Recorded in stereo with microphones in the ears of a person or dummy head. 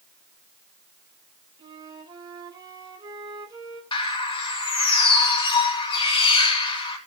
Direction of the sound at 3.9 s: 25° left (ahead or behind).